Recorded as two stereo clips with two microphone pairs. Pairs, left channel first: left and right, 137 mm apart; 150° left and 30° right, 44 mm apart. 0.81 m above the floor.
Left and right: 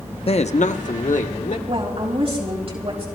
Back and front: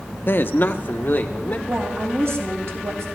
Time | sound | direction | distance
0.3 | a man speaking | 125° left | 0.7 m
1.7 | a woman speaking | 50° right | 4.5 m